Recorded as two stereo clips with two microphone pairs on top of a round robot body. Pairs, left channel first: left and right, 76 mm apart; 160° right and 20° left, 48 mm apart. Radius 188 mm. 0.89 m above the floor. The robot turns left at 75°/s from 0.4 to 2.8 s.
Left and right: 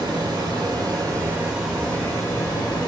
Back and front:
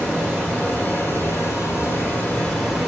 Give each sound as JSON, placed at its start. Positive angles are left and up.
{"t": 0.0, "sound": "running water", "azimuth_deg": -80, "distance_m": 1.3}